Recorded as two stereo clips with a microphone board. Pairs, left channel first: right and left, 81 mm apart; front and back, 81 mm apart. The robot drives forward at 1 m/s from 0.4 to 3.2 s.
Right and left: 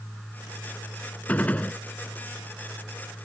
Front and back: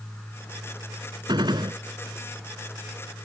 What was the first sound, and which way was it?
A gunshot, 160° right.